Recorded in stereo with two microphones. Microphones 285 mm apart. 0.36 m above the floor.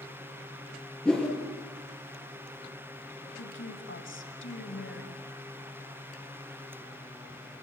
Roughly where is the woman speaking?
Left.